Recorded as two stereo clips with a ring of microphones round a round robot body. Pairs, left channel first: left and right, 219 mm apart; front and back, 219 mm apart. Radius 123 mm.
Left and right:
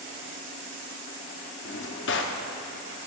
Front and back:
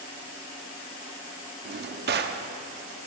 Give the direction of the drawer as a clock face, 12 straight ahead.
7 o'clock.